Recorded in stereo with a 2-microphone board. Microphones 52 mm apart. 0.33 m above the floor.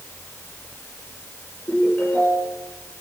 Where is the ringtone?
35° left (ahead or behind), 6 m.